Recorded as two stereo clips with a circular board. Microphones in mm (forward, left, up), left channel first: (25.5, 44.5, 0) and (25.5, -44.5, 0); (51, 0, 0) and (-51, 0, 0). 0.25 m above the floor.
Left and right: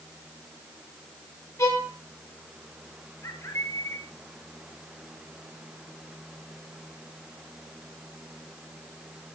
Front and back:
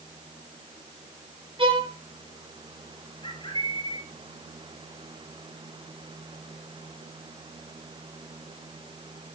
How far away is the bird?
About 3.5 m.